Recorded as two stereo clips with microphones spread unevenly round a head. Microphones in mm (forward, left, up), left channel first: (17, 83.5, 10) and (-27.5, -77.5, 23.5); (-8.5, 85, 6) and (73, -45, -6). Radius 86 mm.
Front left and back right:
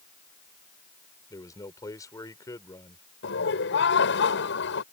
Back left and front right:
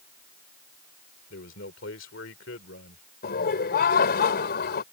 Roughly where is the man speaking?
Behind left.